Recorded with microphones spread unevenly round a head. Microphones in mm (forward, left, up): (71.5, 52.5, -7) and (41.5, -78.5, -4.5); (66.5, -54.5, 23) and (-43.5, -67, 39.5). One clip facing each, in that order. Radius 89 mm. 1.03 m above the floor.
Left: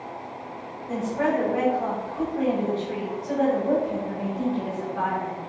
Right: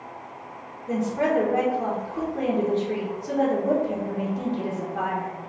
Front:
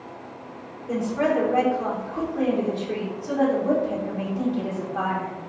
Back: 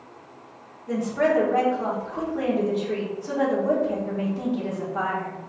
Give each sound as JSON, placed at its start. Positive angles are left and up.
{"t": 0.9, "sound": "a woman speaking", "azimuth_deg": -95, "distance_m": 1.4}